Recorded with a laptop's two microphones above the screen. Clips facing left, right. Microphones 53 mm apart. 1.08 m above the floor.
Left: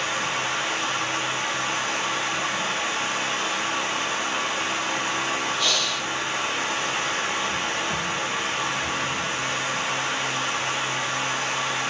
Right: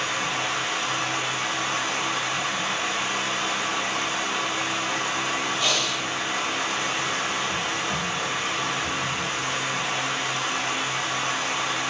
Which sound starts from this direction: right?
Breathing, at 5.6 s.